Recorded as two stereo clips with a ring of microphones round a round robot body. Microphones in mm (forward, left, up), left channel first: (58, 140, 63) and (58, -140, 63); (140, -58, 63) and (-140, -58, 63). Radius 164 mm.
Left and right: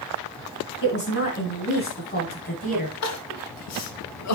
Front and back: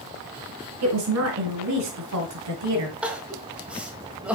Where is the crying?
95° left, 1.2 m.